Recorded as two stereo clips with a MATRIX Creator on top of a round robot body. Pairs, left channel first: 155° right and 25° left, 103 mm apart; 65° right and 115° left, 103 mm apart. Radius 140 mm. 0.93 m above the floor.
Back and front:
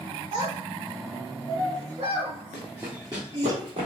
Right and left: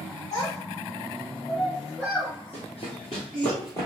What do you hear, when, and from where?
0.3 s a child speaking: 10° right, 0.7 m; by 3.5 s 15° left, 2.5 m
2.5 s running footsteps: 55° right, 1.2 m; by 3.9 s 10° right, 1.5 m